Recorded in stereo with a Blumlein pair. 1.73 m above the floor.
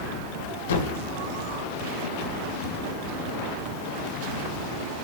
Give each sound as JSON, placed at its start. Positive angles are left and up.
{"t": 0.7, "sound": "a thud", "azimuth_deg": 70, "distance_m": 3.5}